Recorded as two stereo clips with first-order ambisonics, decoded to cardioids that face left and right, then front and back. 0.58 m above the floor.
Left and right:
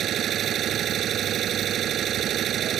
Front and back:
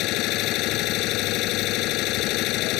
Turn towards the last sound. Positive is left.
turn(degrees=-35)